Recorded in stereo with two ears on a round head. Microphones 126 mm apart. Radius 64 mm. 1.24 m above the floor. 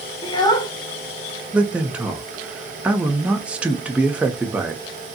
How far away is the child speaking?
About 0.7 m.